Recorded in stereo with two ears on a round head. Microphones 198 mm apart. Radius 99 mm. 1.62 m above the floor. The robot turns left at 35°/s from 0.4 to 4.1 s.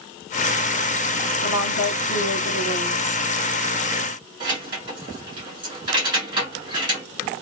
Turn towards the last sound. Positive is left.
turn(degrees=-20)  # may be behind; listen again after turning